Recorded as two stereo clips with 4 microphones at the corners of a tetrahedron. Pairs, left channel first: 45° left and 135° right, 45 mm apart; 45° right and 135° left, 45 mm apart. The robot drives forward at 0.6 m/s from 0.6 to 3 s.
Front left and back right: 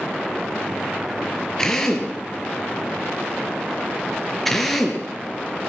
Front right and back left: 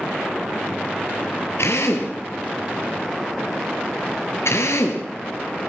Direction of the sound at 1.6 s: 35° right.